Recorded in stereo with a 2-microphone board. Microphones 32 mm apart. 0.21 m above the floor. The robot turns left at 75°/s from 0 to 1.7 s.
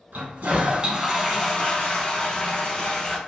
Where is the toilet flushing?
95° right, 0.7 m; by 3.2 s 145° left, 0.7 m.